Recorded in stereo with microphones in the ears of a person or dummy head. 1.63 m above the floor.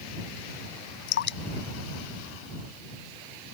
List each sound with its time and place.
1.1 s dripping: 60° left (ahead or behind)